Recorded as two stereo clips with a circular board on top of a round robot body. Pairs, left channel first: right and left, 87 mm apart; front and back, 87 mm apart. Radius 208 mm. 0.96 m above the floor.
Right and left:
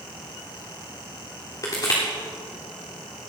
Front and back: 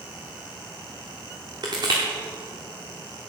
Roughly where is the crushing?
Behind right.